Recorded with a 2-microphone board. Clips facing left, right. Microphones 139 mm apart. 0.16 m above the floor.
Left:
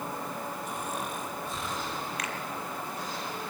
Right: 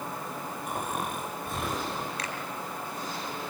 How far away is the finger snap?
About 4 m.